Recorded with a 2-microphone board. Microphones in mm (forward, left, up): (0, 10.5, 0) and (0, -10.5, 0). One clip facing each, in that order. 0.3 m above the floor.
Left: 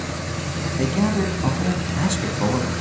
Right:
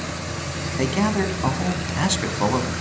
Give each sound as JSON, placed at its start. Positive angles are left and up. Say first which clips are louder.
{"t": 0.8, "sound": "a man speaking", "louder": "even", "side_deg": -25, "distance_m": 2.5}